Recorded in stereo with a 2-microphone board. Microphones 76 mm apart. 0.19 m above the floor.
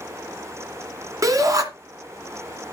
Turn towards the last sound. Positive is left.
turn(degrees=-45)  # may be behind; listen again after turning